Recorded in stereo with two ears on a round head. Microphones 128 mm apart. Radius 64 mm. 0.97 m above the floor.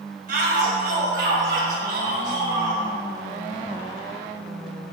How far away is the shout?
About 5 m.